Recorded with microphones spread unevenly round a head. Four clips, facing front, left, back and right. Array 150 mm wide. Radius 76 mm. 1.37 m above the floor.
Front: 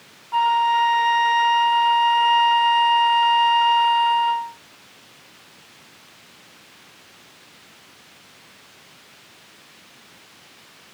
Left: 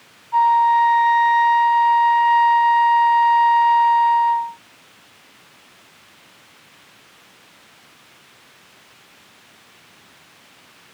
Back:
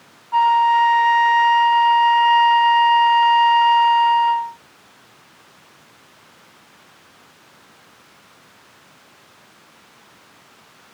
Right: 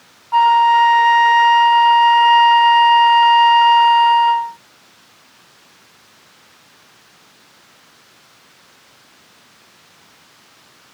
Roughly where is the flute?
Right.